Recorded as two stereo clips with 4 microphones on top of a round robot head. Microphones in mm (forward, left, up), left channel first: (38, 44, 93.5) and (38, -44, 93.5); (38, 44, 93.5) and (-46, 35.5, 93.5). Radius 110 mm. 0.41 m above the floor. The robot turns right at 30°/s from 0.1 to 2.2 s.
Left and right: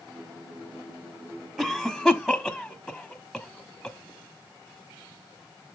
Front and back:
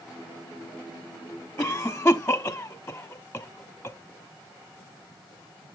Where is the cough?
20° right, 1.2 m; by 4.0 s straight ahead, 1.2 m.